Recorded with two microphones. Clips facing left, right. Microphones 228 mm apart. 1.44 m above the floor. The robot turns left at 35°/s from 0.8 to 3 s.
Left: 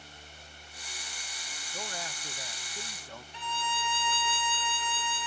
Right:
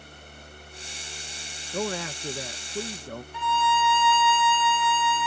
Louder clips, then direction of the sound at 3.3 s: Right 11 dB; 30° left (ahead or behind).